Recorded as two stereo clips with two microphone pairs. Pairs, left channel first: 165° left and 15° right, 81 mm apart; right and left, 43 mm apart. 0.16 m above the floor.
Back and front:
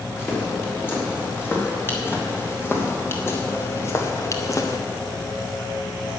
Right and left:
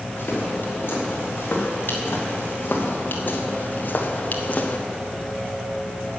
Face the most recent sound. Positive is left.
turn(degrees=-150)